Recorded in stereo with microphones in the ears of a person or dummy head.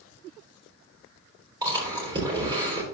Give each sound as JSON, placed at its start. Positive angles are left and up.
{"t": 1.6, "sound": "chewing", "side_deg": -25, "distance_m": 3.5}